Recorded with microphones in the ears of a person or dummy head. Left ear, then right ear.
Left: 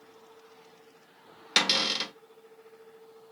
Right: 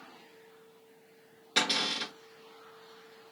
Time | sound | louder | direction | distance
1.6 | a cupboard door | left 4 dB | 55° left (ahead or behind) | 1.0 m